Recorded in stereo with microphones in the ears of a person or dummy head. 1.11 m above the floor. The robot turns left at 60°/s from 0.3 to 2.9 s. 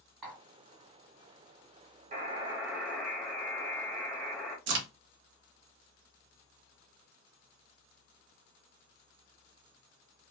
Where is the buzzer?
125° right, 0.6 m; by 4.6 s 175° right, 0.6 m.